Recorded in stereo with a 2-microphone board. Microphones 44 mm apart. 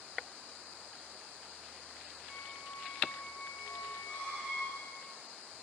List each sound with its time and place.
2.3 s a squeak: 30° left (ahead or behind), 3 m